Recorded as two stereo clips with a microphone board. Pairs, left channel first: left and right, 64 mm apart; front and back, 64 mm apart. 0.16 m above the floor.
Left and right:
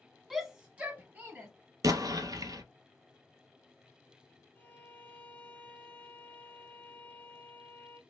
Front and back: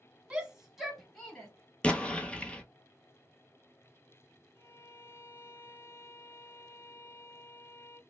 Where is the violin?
35° left, 0.7 m.